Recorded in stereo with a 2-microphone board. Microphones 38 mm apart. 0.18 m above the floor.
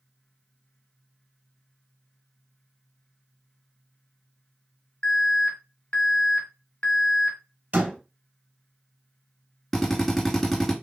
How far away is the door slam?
About 3 m.